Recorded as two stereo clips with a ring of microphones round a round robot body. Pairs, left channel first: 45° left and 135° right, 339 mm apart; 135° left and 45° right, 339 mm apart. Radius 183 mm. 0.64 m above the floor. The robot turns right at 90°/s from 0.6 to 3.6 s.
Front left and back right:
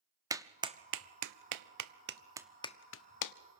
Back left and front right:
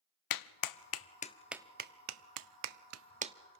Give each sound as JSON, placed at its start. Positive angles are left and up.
{"t": 0.3, "sound": "a clap", "azimuth_deg": 145, "distance_m": 0.8}